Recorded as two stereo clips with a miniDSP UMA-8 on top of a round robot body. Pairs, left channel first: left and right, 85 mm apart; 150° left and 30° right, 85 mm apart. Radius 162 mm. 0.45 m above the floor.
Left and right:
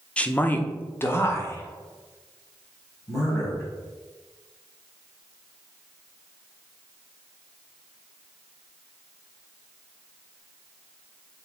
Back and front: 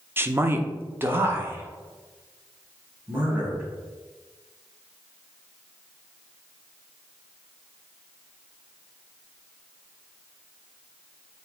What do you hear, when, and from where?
0.2 s a man speaking: 20° left, 0.9 m; by 3.6 s 35° left, 3 m